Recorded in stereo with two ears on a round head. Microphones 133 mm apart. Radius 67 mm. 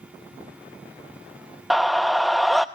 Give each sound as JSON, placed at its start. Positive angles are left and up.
{"t": 1.7, "sound": "a scream", "side_deg": 0, "distance_m": 0.7}